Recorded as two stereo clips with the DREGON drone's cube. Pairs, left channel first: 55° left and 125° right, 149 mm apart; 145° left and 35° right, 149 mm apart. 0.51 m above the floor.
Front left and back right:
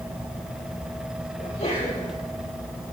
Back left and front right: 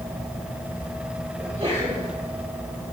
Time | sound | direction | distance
1.4 | a sneeze | 15° left | 9.5 m